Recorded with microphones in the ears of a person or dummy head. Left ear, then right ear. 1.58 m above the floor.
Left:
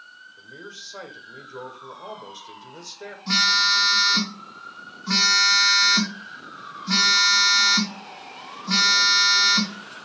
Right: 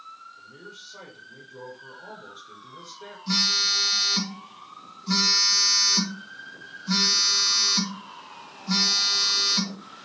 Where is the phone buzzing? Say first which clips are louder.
Left 3 dB; 20° left (ahead or behind), 1.0 m.